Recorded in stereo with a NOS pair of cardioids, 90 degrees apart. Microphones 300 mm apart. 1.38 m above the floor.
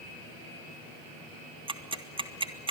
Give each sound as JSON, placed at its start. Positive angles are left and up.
{"t": 1.7, "sound": "ticking", "azimuth_deg": -15, "distance_m": 2.0}